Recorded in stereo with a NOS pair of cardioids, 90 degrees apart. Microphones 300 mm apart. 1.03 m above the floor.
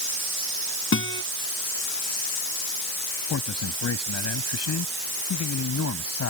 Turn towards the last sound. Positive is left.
turn(degrees=60)